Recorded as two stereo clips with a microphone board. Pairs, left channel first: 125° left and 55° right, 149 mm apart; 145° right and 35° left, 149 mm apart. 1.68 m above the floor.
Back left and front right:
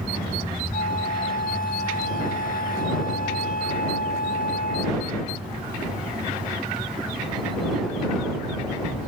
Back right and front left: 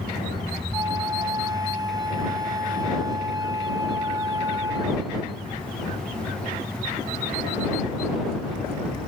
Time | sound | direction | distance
0.7 | a flute | 100° left | ?